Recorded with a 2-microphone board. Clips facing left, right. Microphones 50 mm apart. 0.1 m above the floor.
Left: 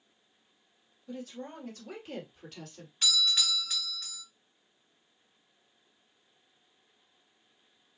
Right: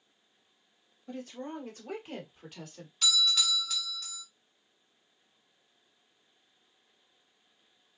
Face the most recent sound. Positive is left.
turn(degrees=25)  # may be behind; listen again after turning